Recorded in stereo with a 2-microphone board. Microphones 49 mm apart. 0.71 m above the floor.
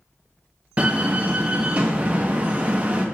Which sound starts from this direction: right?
A door slam, at 0.8 s.